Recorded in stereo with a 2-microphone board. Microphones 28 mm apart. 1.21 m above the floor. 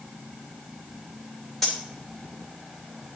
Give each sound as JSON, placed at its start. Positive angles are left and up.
{"t": 1.6, "sound": "cutlery clinking", "side_deg": 10, "distance_m": 3.0}